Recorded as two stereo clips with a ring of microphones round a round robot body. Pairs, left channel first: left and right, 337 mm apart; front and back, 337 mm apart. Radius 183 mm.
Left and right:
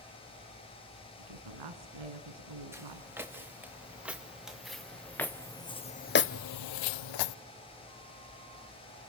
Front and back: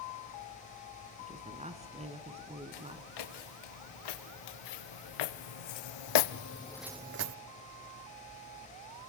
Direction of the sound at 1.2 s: 110° right.